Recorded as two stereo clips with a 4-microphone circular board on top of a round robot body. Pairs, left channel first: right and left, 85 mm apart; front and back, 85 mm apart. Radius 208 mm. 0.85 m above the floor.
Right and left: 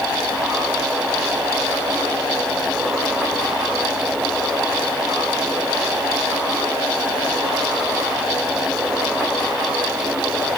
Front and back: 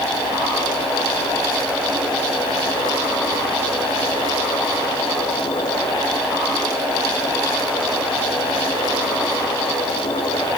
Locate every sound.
Only background noise.